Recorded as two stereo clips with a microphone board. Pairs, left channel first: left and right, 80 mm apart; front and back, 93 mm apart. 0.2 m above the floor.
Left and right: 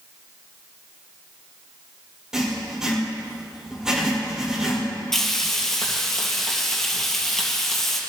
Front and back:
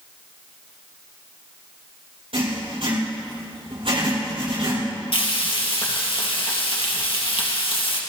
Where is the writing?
175° right, 5.5 m.